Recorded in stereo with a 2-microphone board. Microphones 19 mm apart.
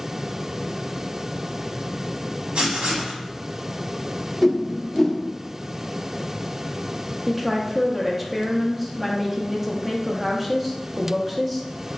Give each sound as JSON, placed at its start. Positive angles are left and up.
{"t": 2.5, "sound": "writing", "side_deg": -70, "distance_m": 1.0}
{"t": 4.4, "sound": "a whoosh", "side_deg": 0, "distance_m": 0.6}
{"t": 7.3, "sound": "a woman speaking", "side_deg": -5, "distance_m": 0.7}